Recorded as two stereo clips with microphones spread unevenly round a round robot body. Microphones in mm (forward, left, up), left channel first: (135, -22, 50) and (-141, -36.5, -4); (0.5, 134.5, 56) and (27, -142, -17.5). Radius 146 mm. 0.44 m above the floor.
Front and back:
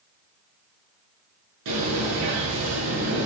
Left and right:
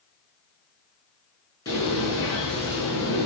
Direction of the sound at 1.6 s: 175° left.